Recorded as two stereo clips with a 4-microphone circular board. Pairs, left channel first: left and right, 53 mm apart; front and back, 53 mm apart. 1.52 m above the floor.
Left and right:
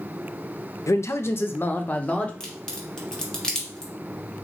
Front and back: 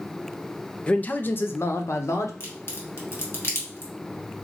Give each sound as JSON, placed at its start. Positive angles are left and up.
{"t": 0.9, "sound": "a man speaking", "azimuth_deg": 70, "distance_m": 0.5}
{"t": 2.4, "sound": "a crack", "azimuth_deg": 15, "distance_m": 1.5}